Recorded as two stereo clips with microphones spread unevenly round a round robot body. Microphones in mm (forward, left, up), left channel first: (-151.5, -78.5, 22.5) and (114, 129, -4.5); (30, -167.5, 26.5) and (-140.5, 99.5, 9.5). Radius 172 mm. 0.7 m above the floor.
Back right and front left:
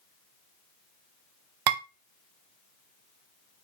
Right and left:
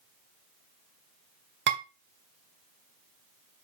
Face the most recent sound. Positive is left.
turn(degrees=60)